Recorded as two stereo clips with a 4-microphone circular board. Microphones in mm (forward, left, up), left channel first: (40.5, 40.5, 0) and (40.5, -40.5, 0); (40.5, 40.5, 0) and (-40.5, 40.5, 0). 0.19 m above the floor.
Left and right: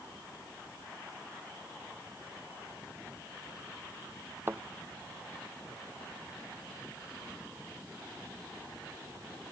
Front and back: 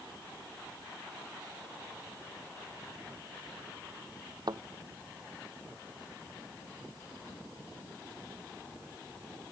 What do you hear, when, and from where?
4.5 s a thud: 155° right